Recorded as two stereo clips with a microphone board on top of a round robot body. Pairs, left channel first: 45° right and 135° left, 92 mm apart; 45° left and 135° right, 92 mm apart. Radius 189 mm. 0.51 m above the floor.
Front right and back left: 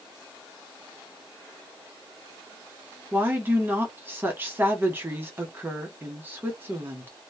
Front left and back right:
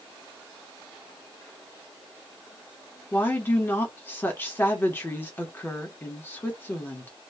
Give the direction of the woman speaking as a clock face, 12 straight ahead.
9 o'clock.